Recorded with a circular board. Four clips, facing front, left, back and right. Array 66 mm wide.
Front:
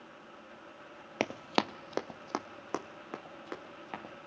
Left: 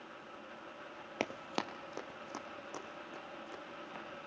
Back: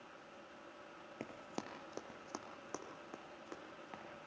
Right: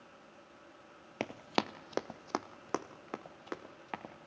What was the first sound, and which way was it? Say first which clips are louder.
Running footsteps: right 4 dB, front 16 dB; 5° left.